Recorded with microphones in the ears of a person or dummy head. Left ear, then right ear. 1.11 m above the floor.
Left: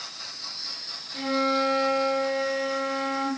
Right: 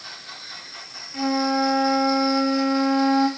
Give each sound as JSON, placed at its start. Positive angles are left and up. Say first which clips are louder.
{"t": 1.1, "sound": "a flute", "louder": "right 2 dB", "side_deg": -30, "distance_m": 0.8}